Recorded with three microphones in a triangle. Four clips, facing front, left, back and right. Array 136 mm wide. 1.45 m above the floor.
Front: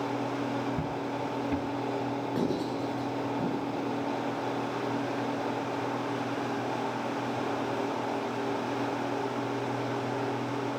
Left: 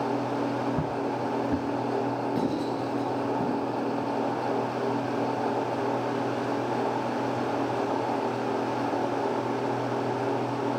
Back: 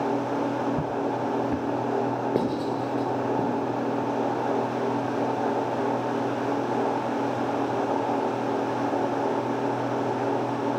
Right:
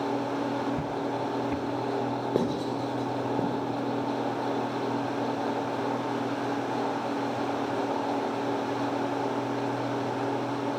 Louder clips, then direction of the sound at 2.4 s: Even, back 4 dB; 140° right.